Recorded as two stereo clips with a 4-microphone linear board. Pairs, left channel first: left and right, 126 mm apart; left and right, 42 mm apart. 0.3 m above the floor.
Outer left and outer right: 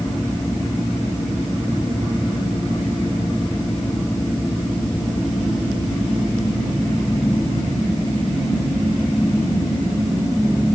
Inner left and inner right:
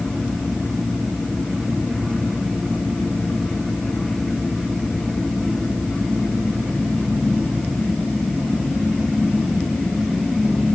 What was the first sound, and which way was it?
Only background noise.